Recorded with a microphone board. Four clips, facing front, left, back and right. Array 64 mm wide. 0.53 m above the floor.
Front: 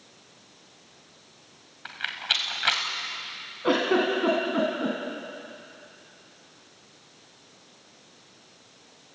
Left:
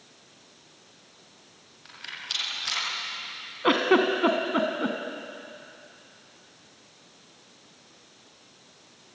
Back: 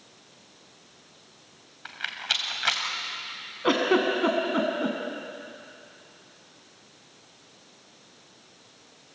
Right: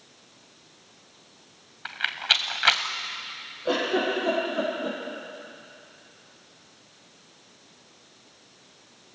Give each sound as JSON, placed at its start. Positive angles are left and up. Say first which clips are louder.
{"t": 1.9, "sound": "a rattle", "louder": "right 12 dB, front 1 dB", "azimuth_deg": -85, "distance_m": 1.5}
{"t": 3.6, "sound": "a giggle", "louder": "left 4 dB, even", "azimuth_deg": 105, "distance_m": 3.0}